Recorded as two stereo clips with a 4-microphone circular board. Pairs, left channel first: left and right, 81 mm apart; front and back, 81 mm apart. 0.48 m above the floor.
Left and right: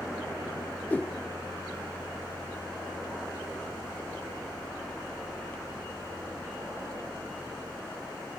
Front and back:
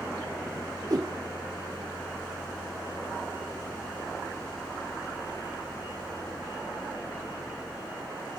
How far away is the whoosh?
About 0.7 m.